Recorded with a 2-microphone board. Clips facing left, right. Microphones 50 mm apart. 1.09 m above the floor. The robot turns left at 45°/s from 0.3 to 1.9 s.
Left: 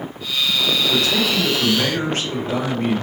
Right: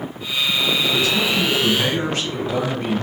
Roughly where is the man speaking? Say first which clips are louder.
Even; left.